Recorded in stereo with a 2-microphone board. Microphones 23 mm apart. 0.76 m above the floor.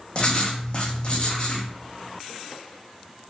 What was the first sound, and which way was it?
Writing, 40° left (ahead or behind).